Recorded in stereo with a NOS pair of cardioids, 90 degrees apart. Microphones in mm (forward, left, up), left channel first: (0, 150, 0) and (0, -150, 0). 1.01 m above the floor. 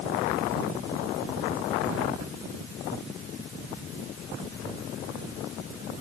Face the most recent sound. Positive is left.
No sound to turn to.